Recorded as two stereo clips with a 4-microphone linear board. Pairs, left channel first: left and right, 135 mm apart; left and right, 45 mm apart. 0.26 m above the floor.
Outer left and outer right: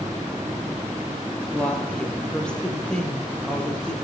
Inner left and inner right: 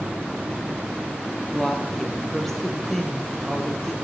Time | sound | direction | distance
1.5 | a woman speaking | 5° left (ahead or behind) | 5.5 m